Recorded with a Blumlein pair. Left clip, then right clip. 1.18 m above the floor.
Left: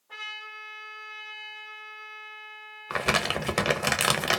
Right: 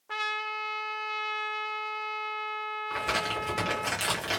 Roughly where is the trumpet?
Ahead right.